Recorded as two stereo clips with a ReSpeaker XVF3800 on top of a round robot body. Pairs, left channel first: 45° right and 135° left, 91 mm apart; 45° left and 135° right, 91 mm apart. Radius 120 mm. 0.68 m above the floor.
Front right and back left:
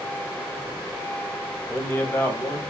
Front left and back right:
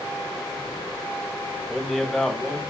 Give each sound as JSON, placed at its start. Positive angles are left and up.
{"t": 1.7, "sound": "a man speaking", "azimuth_deg": -35, "distance_m": 1.2}